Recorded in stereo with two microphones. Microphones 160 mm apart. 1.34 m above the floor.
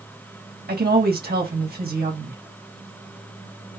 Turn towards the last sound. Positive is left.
turn(degrees=-80)